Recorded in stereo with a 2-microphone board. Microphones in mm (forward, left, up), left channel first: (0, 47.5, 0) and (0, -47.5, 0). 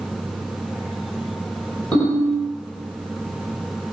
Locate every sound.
1.9 s a ringtone: 15° left (ahead or behind), 2.0 m